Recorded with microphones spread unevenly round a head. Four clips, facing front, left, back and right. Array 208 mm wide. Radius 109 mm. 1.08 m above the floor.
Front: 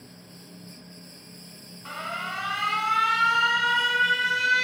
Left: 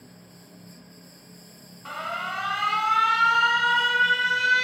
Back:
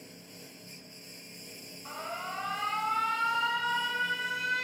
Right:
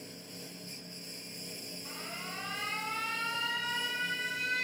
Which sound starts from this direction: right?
A lawn mower, at 0.0 s.